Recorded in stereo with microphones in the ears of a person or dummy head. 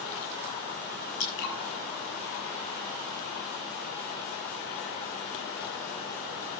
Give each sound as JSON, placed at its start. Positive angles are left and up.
{"t": 1.2, "sound": "dripping", "side_deg": 70, "distance_m": 6.5}